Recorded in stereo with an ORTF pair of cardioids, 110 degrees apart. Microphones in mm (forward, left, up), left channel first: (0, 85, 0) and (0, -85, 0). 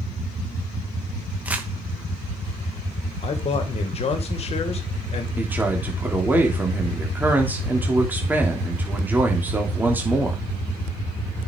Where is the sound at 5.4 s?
10° right, 3.5 m.